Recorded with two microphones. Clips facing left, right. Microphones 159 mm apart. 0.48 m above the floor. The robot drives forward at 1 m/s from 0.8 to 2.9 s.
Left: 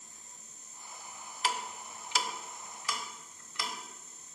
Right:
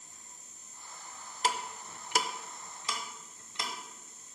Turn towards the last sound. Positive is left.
turn(degrees=-25)  # may be behind; listen again after turning